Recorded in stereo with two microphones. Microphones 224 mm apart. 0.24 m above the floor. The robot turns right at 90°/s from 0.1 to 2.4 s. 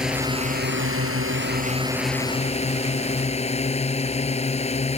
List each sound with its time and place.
0.0 s a drone: 175° right; by 5.0 s 30° left